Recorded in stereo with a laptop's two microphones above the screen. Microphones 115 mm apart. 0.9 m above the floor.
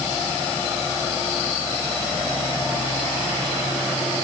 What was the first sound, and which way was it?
Only background noise.